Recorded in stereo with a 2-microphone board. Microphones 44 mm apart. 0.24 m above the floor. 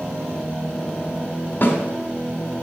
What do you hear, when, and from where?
1.6 s a snare drum: 45° left (ahead or behind), 2.0 m